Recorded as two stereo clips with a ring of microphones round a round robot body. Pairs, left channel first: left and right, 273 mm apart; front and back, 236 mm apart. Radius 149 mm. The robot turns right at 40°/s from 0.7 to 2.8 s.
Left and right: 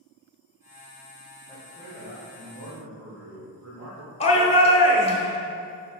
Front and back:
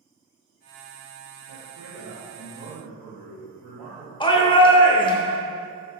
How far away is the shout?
About 1.0 m.